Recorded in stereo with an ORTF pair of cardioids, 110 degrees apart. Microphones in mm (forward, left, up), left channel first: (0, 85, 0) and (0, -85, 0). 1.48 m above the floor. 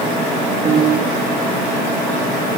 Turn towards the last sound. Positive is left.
turn(degrees=-20)